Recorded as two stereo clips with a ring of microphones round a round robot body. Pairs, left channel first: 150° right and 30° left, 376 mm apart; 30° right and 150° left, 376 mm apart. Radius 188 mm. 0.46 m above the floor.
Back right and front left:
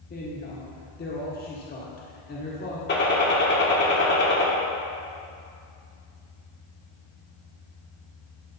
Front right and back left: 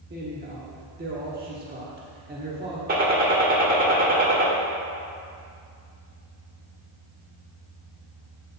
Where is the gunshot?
170° right, 1.4 m.